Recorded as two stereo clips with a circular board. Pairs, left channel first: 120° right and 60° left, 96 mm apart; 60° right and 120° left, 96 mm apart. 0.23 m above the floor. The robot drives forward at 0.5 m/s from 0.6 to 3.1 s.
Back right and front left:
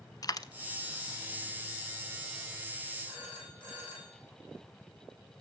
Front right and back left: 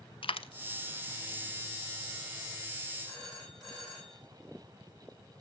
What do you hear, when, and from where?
0.2 s a dropped coin: 75° right, 0.6 m
3.0 s a phone ringing: 145° right, 7.5 m